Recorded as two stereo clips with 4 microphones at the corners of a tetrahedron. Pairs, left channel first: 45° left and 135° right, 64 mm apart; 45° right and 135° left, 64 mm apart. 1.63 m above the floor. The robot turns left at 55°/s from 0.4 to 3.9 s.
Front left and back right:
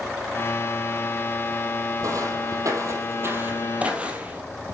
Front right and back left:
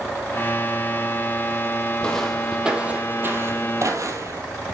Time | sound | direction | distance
2.0 | footsteps | 120° right | 3.5 m